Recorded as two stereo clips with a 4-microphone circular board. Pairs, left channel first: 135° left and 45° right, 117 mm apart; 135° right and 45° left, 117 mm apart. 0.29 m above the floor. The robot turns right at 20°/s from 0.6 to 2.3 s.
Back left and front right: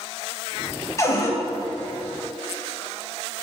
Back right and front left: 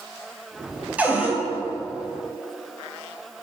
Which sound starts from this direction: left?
A cupboard door, at 1.0 s.